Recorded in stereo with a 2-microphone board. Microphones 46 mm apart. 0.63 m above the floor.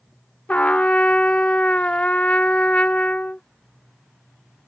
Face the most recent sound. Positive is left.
turn(degrees=30)  # may be behind; listen again after turning